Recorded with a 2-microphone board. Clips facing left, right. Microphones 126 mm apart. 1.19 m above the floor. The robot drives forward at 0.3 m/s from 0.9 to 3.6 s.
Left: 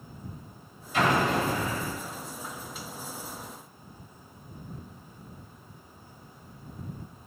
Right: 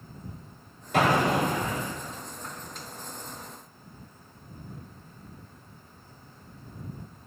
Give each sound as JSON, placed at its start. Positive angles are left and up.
{"t": 0.9, "sound": "an explosion", "side_deg": -75, "distance_m": 4.5}